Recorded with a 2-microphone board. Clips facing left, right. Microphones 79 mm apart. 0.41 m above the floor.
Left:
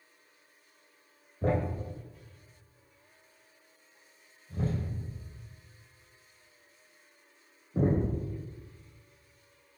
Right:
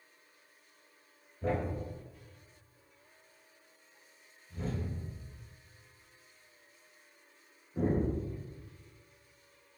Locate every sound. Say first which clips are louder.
1.4 s a thud: left 3 dB; 50° left (ahead or behind), 0.8 m